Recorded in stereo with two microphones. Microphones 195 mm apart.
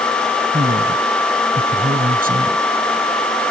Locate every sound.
0.5 s a man speaking: 50° right (ahead or behind)